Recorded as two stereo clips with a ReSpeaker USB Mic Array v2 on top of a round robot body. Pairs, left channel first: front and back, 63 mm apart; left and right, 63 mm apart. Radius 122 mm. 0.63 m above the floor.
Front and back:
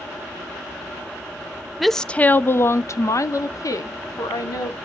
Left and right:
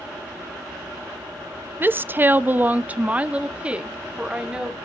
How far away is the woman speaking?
About 0.6 m.